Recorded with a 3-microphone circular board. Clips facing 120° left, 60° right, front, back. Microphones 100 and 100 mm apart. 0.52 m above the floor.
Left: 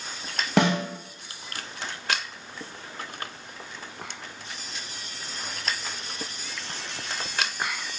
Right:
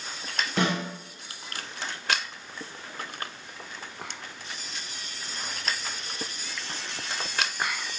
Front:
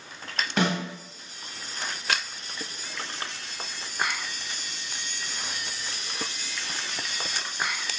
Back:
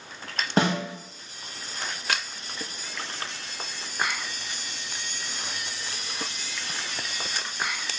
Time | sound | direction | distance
0.6 | a snare drum | 125° left | 0.6 m